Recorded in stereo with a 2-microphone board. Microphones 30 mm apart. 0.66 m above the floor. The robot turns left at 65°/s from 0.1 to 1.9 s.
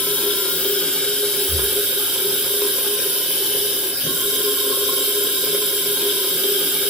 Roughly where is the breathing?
Centre.